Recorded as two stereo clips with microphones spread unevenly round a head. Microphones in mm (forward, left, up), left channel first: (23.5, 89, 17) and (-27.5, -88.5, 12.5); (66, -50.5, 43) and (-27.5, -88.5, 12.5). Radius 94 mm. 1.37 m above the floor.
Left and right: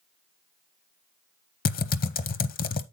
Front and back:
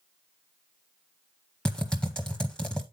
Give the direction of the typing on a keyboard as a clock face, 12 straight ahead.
8 o'clock.